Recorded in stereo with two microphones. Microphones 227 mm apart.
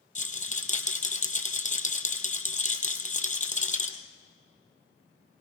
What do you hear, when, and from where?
0.1 s a rattle: 35° left (ahead or behind), 1.9 m